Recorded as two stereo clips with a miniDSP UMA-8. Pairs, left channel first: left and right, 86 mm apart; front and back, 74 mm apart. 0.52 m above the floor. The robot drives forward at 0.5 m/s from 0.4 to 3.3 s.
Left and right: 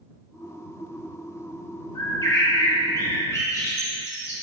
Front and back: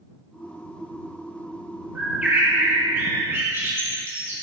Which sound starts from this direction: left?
A bird, at 1.9 s.